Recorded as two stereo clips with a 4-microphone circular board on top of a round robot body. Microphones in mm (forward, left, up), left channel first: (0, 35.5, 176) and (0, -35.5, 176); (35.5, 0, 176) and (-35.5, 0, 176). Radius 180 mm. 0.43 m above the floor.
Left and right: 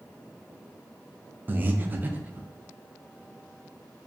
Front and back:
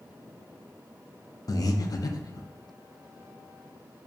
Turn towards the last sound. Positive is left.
turn(degrees=-30)